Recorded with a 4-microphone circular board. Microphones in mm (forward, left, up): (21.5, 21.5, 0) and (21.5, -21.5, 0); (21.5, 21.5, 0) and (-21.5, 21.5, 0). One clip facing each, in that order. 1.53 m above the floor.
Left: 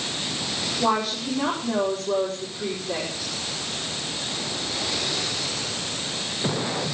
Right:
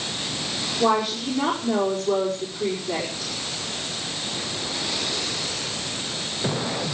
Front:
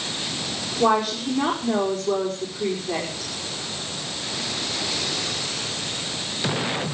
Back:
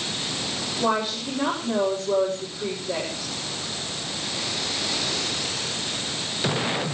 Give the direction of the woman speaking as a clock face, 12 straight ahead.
12 o'clock.